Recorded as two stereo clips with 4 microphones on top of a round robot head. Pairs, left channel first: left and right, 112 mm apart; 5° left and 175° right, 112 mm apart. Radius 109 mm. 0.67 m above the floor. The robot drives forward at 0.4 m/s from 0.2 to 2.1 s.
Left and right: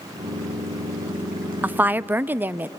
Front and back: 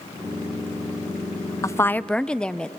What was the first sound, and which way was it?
A woman speaking, 25° right.